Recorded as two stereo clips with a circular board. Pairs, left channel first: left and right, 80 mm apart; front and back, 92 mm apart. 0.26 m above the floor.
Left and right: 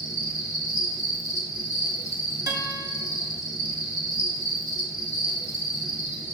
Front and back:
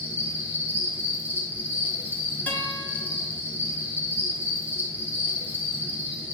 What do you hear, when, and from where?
0.0 s an insect: 115° right, 1.1 m
2.5 s a guitar: 65° right, 0.9 m